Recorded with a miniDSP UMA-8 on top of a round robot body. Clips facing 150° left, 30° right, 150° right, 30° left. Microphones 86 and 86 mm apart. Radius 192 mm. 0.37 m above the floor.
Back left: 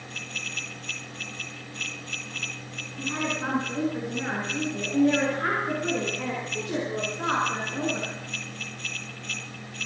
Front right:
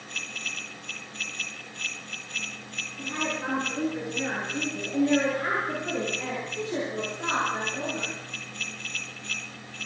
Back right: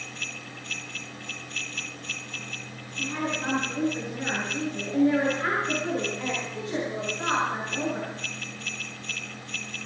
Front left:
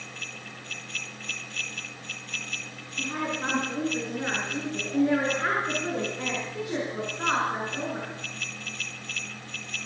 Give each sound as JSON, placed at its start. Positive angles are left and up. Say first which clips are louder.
{"t": 3.0, "sound": "a woman speaking", "louder": "back left 2 dB, even", "azimuth_deg": 90, "distance_m": 7.5}